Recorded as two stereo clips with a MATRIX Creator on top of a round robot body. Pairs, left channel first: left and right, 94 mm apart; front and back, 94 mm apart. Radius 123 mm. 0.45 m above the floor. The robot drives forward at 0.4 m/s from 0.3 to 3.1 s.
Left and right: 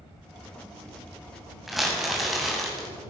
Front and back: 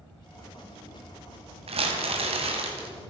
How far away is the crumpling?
About 2.5 m.